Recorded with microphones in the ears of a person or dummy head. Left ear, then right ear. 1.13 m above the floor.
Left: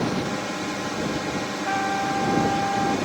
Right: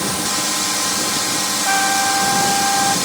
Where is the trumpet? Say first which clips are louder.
Right 7 dB; 55° right (ahead or behind).